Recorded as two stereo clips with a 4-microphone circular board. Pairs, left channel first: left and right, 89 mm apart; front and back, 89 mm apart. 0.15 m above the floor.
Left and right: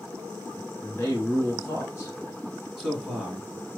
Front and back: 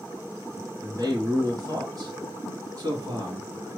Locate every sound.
0.8 s a man speaking: 145° left, 1.6 m
2.8 s a man speaking: straight behind, 1.9 m